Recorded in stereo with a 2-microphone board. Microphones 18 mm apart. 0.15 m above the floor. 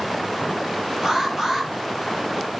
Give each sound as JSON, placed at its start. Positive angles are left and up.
{"t": 1.0, "sound": "an alarm", "side_deg": -40, "distance_m": 5.5}